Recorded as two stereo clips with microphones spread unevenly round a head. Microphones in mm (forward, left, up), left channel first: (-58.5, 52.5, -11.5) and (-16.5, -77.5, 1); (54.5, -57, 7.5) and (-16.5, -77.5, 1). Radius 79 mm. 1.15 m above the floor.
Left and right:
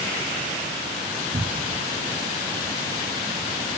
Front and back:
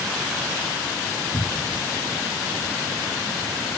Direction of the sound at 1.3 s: 25° right.